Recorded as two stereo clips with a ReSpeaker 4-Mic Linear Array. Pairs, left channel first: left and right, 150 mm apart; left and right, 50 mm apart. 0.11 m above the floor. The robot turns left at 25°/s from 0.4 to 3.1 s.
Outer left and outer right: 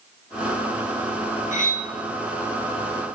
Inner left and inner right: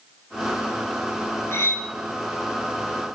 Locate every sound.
1.5 s cutlery clinking: 60° left (ahead or behind), 1.5 m; by 1.9 s 65° left (ahead or behind), 1.5 m